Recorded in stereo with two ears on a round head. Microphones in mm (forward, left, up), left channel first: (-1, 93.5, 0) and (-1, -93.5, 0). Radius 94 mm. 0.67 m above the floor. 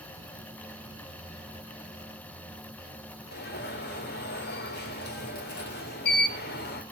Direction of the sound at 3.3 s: 50° left (ahead or behind).